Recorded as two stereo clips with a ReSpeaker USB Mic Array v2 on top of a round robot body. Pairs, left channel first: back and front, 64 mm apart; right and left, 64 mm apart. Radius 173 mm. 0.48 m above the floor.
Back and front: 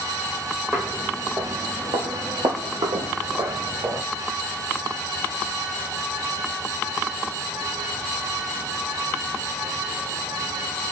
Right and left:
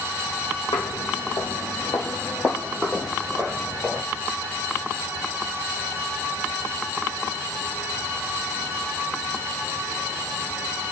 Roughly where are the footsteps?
Right.